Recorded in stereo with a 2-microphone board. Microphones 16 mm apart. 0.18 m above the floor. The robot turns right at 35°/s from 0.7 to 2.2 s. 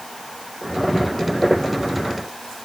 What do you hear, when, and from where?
Only background noise.